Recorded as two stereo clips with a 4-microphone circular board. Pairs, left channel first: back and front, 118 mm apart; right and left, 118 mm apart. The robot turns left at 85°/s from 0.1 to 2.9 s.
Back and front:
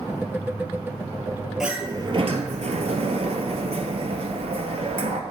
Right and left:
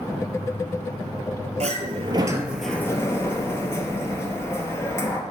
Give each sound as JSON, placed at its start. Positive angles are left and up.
{"t": 1.6, "sound": "a sliding door", "azimuth_deg": 85, "distance_m": 0.8}